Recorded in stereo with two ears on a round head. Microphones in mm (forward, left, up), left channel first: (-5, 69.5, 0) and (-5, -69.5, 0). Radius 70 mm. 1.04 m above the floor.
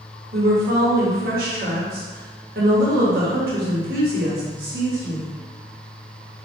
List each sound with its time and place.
0.3 s a woman speaking: 70° right (ahead or behind), 1.3 m